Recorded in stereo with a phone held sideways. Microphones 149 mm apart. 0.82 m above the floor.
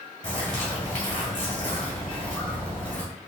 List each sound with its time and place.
0.2 s a bird: 55° left (ahead or behind), 1.4 m